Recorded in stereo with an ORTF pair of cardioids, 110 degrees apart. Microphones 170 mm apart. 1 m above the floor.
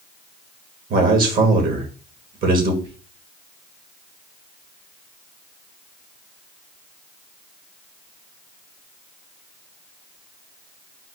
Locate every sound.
0.9 s a man speaking: 65° right, 1.5 m
2.8 s whispering: 35° right, 1.0 m